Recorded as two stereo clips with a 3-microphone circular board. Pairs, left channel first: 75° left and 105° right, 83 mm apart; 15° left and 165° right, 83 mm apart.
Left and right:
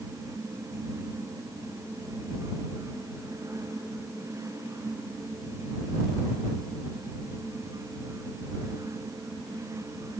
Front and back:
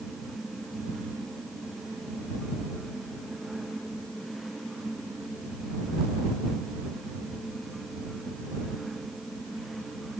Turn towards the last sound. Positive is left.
No sound to turn to.